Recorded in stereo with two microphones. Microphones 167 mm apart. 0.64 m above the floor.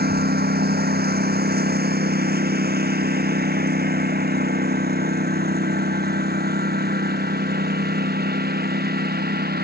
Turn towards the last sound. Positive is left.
turn(degrees=-70)  # may be behind; listen again after turning